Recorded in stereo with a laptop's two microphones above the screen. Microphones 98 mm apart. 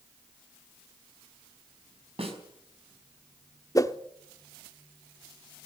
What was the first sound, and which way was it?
A snare drum, 80° right.